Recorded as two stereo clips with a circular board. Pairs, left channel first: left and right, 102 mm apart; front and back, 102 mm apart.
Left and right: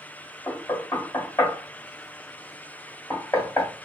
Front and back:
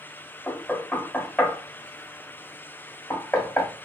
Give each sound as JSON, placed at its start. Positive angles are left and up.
{"t": 0.5, "sound": "knocking", "azimuth_deg": 85, "distance_m": 1.2}